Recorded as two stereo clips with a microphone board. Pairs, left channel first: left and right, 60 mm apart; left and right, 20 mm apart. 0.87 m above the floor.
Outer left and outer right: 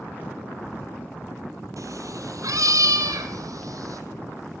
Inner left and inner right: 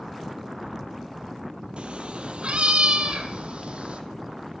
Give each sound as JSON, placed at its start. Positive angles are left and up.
{"t": 1.8, "sound": "a cat meowing", "side_deg": -65, "distance_m": 1.7}